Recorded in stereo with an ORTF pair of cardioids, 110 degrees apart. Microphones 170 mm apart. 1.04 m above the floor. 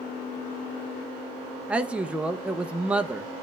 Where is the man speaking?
5° right, 0.6 m.